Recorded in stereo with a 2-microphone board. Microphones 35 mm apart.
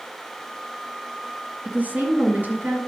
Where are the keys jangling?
I don't hear keys jangling.